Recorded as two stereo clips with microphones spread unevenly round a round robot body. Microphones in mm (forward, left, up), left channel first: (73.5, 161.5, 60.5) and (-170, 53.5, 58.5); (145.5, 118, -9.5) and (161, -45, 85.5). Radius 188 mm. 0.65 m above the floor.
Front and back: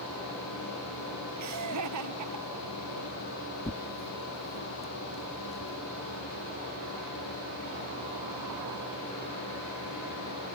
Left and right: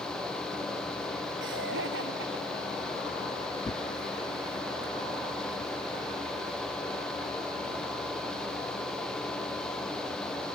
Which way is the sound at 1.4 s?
115° right.